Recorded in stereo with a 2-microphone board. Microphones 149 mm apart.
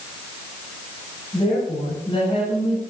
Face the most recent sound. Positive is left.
turn(degrees=40)  # may be behind; listen again after turning